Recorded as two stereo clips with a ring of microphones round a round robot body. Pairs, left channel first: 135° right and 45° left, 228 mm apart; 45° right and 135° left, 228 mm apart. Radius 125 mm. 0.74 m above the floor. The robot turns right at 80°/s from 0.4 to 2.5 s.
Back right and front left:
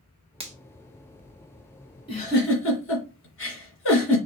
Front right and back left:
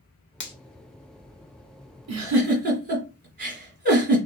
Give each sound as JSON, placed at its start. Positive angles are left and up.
{"t": 0.4, "sound": "a finger snap", "azimuth_deg": -20, "distance_m": 1.3}
{"t": 2.1, "sound": "a giggle", "azimuth_deg": 155, "distance_m": 2.0}